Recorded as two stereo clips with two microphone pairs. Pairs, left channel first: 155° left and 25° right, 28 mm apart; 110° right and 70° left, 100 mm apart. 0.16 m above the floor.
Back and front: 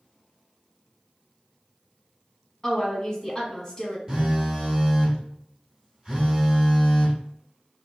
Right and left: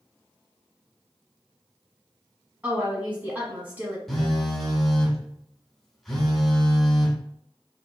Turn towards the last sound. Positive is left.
turn(degrees=-35)